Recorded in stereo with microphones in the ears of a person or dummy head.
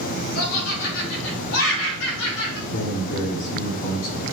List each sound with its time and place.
0.3 s laughter: 70° left (ahead or behind), 5 m; by 2.6 s 85° left, 6.5 m
2.7 s a man speaking: 75° left (ahead or behind), 5 m